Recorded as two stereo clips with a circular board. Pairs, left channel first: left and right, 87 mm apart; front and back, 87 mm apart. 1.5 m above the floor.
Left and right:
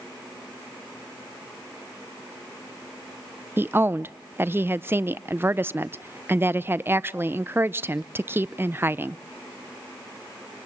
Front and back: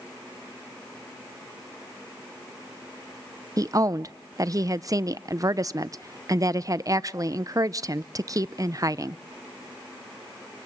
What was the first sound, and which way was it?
A woman speaking, 145° right.